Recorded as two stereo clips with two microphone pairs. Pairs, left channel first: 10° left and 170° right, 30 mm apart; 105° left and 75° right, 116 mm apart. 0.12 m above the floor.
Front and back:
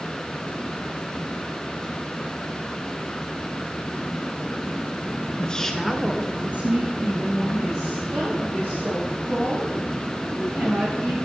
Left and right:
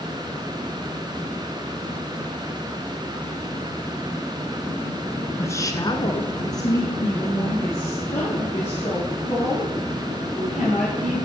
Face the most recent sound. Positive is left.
turn(degrees=180)